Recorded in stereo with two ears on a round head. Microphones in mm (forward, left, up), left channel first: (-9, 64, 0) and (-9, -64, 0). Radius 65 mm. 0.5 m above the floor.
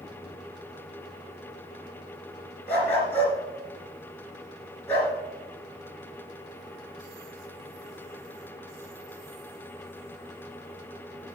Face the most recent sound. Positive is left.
turn(degrees=15)  # may be behind; listen again after turning